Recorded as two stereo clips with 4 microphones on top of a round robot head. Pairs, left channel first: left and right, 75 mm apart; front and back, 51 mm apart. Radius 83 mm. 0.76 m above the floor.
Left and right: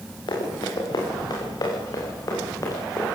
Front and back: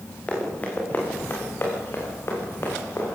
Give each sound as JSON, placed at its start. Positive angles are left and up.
{"t": 0.3, "sound": "running footsteps", "azimuth_deg": 65, "distance_m": 7.0}